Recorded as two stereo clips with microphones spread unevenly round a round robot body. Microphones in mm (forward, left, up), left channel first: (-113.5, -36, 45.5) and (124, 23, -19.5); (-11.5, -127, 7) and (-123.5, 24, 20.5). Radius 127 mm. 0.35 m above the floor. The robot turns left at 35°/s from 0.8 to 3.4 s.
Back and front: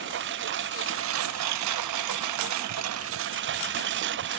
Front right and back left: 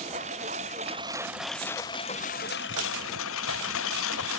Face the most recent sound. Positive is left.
turn(degrees=-30)